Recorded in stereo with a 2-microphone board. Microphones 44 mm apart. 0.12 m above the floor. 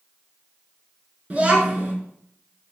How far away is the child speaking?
About 0.7 m.